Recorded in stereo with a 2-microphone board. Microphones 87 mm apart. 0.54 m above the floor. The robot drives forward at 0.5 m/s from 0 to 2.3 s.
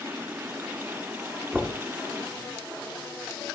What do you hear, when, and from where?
1.5 s knocking: 10° right (ahead or behind), 1.2 m